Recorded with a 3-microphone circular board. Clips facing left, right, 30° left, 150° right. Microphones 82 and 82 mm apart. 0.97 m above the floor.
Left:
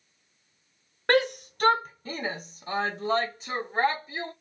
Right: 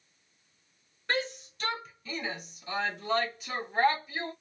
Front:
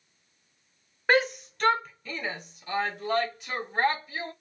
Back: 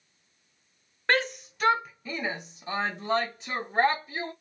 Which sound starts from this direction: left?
A shout, at 1.1 s.